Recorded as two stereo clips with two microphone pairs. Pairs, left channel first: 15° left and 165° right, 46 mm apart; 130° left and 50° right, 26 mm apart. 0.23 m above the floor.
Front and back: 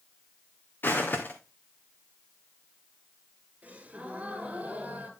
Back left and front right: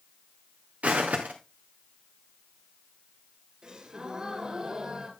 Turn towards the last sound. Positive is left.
turn(degrees=-105)